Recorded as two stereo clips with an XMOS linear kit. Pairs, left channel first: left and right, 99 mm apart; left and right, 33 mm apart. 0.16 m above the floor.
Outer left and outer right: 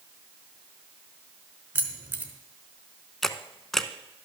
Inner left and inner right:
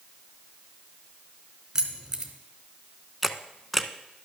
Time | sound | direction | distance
1.8 | keys jangling | 15° right (ahead or behind) | 1.5 m
3.2 | a camera shutter | 5° left (ahead or behind) | 0.6 m